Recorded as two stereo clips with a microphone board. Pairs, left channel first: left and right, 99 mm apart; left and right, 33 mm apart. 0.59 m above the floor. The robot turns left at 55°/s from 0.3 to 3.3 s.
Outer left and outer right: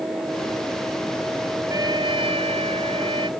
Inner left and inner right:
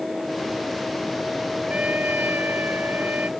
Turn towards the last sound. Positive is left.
turn(degrees=-125)